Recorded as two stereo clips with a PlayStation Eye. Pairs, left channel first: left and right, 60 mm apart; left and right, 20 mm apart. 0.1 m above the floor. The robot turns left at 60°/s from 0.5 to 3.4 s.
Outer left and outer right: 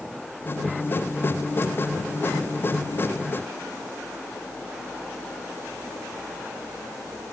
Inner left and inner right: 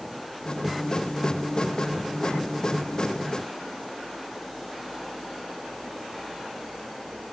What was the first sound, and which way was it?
Only background noise.